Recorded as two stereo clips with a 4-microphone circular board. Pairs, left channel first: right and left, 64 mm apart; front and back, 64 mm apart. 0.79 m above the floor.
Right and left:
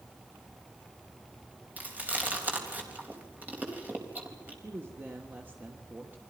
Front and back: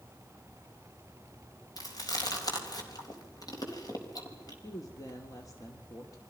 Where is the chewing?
25° left, 4 m.